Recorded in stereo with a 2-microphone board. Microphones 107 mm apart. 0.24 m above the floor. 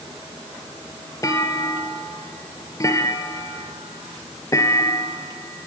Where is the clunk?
30° left (ahead or behind), 2.0 m.